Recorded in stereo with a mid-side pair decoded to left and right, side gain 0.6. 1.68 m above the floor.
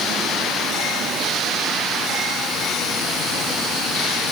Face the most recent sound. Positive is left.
No sound to turn to.